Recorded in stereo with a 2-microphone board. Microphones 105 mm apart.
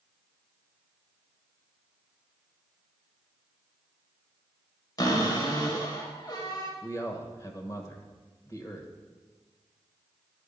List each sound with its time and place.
5.0 s a cupboard door: 40° left (ahead or behind), 1.5 m
6.8 s a man speaking: 30° left (ahead or behind), 1.2 m